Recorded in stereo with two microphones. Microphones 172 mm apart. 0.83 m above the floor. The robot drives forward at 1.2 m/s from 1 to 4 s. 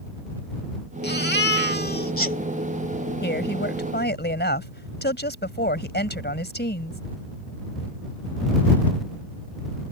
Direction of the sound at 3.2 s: 80° left.